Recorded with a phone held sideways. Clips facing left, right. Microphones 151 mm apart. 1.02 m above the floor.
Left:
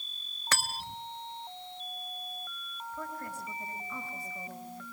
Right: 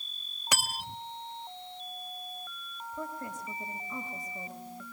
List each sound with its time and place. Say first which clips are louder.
0.5 s cutlery clinking: right 1 dB; 15° right (ahead or behind), 0.8 m
2.9 s a woman speaking: right 2 dB; 20° right (ahead or behind), 5 m